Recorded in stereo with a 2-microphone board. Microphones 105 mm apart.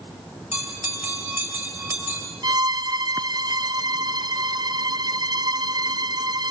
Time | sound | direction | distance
0.5 | a bell | 20° right (ahead or behind) | 6.5 m
2.4 | a violin | 45° right (ahead or behind) | 0.7 m